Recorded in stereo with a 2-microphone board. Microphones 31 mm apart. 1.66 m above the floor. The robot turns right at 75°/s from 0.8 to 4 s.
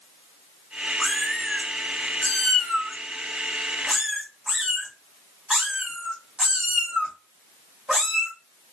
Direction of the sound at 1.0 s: Centre (ahead or behind).